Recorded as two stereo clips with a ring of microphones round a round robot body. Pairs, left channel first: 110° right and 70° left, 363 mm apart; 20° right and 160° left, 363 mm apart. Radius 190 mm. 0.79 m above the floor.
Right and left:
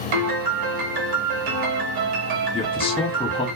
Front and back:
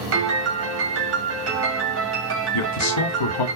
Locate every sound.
0.1 s a piano: 100° left, 1.7 m
2.5 s a man speaking: 35° right, 1.8 m